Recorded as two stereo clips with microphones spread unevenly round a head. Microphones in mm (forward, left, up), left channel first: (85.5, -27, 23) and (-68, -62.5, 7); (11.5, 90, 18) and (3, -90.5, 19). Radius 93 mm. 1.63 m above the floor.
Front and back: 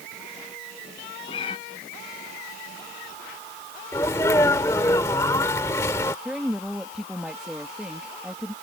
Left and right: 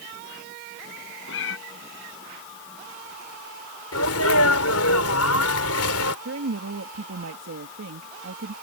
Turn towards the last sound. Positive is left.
turn(degrees=-80)